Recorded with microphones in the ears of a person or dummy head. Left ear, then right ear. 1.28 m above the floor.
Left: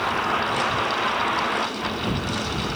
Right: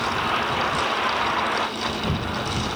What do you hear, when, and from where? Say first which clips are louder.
0.0 s a vehicle: even; 5° left (ahead or behind); by 2.8 s 20° right (ahead or behind)